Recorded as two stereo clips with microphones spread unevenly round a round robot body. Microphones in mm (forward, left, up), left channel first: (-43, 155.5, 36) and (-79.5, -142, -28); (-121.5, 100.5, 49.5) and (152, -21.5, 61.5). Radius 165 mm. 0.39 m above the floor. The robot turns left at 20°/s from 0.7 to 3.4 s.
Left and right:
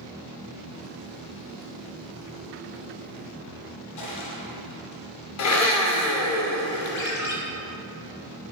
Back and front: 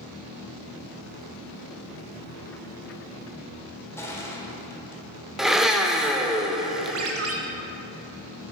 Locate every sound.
4.0 s crushing: 80° left, 1.6 m
5.4 s a blender: 65° left, 0.8 m
7.0 s a ringtone: 20° left, 1.0 m